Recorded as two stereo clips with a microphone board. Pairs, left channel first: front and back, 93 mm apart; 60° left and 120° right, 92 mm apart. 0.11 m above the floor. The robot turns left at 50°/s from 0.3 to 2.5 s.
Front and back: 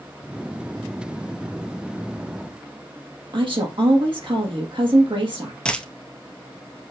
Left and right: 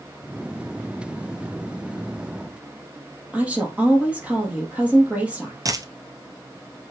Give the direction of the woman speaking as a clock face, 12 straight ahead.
6 o'clock.